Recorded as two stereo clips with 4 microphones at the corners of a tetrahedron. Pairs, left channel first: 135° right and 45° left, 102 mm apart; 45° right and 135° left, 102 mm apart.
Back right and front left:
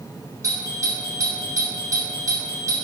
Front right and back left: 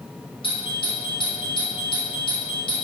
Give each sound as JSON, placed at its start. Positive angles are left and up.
{"t": 0.4, "sound": "a doorbell", "azimuth_deg": -10, "distance_m": 4.0}